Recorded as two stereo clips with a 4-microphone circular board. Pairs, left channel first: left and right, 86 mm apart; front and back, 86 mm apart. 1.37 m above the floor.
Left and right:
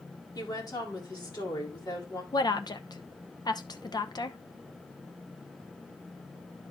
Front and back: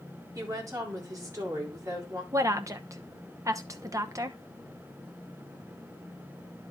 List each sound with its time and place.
0.3 s a woman speaking: 125° left, 4 m
2.3 s a woman speaking: 125° left, 0.9 m